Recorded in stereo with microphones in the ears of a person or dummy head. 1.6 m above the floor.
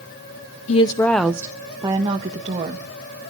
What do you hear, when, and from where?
0.7 s a woman speaking: 35° left (ahead or behind), 0.6 m; by 2.9 s 35° right (ahead or behind), 2 m